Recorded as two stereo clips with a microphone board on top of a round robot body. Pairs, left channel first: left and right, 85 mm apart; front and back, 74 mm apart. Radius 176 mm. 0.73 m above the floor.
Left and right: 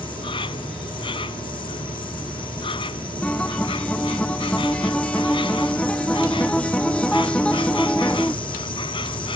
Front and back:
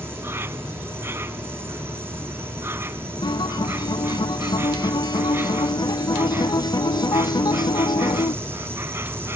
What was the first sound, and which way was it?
An insect, 115° left.